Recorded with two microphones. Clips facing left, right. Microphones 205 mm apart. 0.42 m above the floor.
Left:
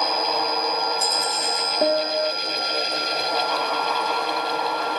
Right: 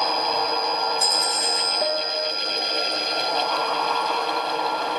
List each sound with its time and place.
1.8 s a piano: 40° left (ahead or behind)